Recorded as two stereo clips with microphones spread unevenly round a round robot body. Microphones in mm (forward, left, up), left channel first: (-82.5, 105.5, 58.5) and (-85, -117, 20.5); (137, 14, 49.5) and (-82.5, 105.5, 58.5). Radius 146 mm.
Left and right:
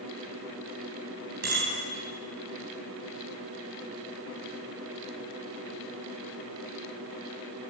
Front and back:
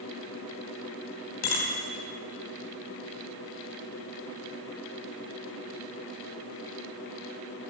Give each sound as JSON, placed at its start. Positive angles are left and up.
{"t": 1.4, "sound": "a bicycle bell", "azimuth_deg": -35, "distance_m": 3.5}